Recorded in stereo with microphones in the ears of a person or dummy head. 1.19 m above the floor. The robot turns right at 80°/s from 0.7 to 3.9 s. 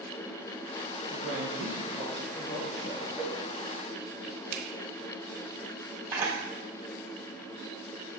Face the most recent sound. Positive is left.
turn(degrees=-15)  # may be behind; listen again after turning